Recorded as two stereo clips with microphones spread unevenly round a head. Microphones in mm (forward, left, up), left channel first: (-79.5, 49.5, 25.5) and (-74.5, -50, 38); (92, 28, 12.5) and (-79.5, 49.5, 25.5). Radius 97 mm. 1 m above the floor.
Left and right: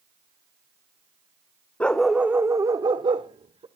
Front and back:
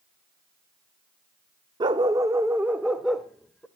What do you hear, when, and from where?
1.8 s a dog barking: 170° left, 0.6 m; by 3.7 s 95° right, 1.1 m